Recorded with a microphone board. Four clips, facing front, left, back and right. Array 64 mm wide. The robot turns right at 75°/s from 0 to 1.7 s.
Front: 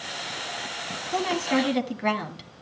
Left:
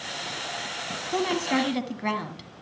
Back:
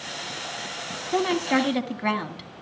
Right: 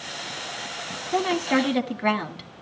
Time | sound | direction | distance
1.1 | a woman speaking | 165° right | 1.3 m